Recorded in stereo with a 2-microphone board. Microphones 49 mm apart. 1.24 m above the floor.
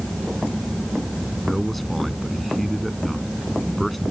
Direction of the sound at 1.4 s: 5° left (ahead or behind).